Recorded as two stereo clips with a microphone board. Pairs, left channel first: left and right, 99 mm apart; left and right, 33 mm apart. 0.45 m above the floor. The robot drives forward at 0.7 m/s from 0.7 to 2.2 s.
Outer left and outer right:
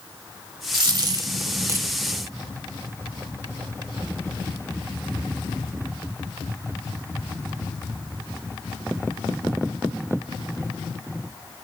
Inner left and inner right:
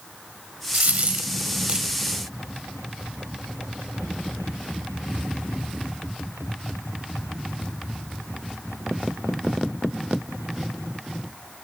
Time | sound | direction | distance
0.7 | a dropped coin | 60° right (ahead or behind) | 1.0 m